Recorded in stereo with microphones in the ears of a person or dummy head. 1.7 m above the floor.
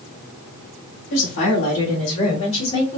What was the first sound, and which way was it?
A woman speaking, 65° left (ahead or behind).